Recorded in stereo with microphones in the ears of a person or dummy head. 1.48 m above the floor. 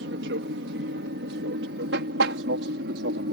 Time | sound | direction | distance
0.0 | an aircraft | 65° right (ahead or behind) | ?